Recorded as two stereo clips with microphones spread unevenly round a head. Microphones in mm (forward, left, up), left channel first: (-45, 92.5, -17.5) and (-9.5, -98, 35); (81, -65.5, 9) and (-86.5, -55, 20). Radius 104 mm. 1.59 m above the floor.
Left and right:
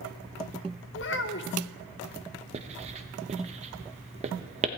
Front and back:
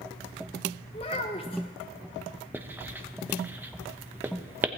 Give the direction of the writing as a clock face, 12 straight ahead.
4 o'clock.